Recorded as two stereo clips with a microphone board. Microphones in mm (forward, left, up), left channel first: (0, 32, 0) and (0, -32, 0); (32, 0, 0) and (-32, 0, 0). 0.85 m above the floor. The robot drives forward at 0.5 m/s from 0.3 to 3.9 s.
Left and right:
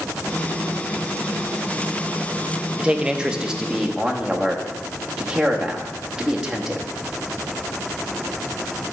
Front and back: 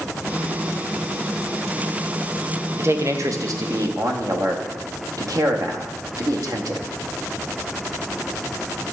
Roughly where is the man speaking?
Behind right.